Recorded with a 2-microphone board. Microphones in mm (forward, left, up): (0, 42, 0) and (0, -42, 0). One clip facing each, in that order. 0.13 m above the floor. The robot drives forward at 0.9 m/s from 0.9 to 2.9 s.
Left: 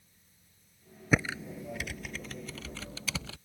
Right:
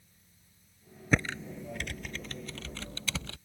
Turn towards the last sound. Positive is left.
turn(degrees=5)  # may be behind; listen again after turning